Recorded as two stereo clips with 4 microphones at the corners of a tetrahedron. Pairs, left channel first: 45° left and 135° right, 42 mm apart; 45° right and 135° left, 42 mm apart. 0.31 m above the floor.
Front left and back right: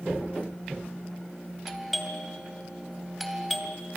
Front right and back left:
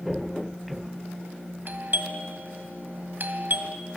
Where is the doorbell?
135° left, 2.5 m.